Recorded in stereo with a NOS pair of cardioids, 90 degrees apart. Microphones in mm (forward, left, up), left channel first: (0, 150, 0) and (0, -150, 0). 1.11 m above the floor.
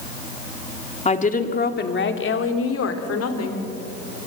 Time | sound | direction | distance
1.1 | a woman speaking | 20° left | 2.5 m